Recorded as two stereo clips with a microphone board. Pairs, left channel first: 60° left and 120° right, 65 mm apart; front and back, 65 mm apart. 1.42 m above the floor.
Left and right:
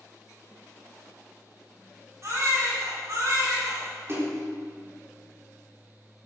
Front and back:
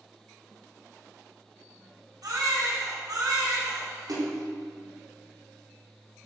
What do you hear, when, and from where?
2.2 s a baby crying: 165° right, 7.5 m
4.1 s a splash: 170° right, 4 m